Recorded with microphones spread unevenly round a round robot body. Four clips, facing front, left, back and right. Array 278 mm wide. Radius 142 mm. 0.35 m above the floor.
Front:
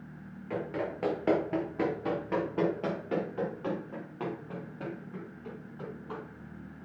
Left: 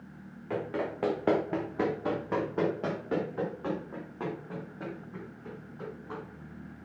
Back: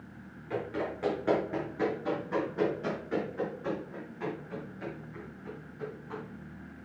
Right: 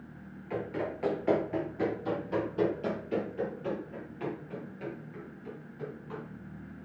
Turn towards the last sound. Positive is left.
turn(degrees=45)